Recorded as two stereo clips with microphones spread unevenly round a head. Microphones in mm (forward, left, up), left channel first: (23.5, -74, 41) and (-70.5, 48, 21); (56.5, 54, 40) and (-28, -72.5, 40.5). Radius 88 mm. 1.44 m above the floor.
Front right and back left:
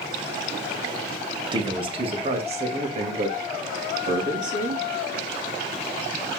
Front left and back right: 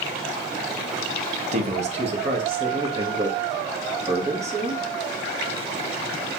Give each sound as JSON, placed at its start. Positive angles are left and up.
{"t": 1.5, "sound": "a man speaking", "azimuth_deg": -175, "distance_m": 2.0}